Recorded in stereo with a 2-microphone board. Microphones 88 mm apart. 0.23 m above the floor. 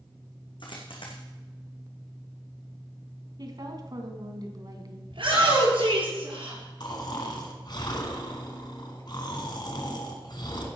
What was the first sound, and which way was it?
A dropped coin, 65° left (ahead or behind).